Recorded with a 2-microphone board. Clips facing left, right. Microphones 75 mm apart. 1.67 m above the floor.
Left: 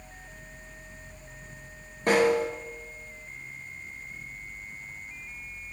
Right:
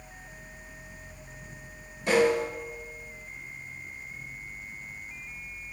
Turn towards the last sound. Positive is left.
turn(degrees=45)  # may be behind; listen again after turning